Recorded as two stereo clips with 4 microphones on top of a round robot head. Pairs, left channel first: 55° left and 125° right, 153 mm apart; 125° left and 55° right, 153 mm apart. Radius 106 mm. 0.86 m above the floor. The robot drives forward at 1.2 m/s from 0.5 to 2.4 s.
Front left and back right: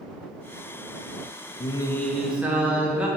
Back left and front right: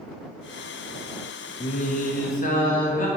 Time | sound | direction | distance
1.6 | singing | 85° left | 0.6 m